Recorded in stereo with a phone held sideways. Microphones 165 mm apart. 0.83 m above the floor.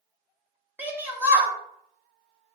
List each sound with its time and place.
0.8 s a shout: 10° right (ahead or behind), 1.0 m